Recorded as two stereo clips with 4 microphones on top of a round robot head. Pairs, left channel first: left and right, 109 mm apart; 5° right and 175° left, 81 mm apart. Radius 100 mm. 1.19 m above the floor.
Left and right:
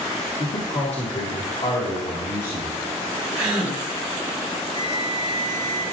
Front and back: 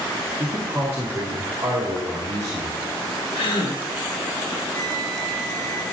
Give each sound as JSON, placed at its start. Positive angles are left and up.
{"t": 0.4, "sound": "a man speaking", "azimuth_deg": 105, "distance_m": 2.0}
{"t": 3.4, "sound": "a gasp", "azimuth_deg": -5, "distance_m": 2.5}
{"t": 4.7, "sound": "a flute", "azimuth_deg": -40, "distance_m": 1.7}